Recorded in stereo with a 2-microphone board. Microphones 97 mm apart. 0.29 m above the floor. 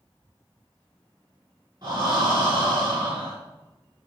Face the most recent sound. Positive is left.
turn(degrees=-40)  # may be behind; listen again after turning